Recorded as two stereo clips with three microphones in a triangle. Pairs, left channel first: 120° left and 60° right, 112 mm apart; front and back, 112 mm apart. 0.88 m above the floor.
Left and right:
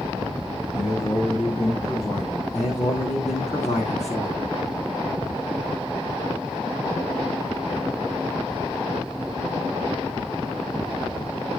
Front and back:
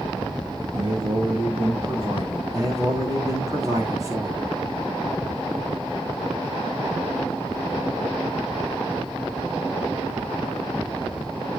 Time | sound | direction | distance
0.7 | a man speaking | 145° left | 6.5 m
2.5 | a man speaking | 120° left | 7.5 m